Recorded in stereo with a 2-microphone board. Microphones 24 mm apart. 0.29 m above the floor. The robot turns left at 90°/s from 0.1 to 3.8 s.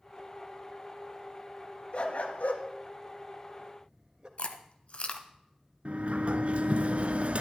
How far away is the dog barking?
About 1.5 m.